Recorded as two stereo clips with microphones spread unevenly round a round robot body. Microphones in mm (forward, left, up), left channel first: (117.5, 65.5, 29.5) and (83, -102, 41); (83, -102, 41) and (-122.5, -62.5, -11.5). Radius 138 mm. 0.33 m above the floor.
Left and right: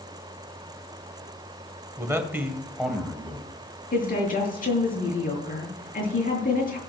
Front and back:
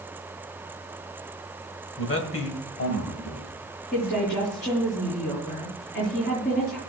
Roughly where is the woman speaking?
Ahead left.